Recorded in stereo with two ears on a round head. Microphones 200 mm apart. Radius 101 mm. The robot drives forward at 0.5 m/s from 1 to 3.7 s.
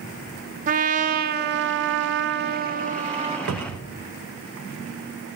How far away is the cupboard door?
About 0.9 m.